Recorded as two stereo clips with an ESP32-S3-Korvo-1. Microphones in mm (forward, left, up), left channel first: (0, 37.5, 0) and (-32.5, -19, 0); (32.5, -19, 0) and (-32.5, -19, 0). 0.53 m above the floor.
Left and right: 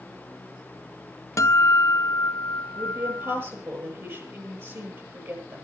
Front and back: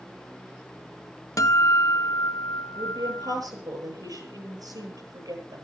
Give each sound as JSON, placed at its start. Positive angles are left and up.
{"t": 1.4, "sound": "a guitar", "azimuth_deg": 25, "distance_m": 0.7}
{"t": 2.8, "sound": "a woman speaking", "azimuth_deg": -170, "distance_m": 9.5}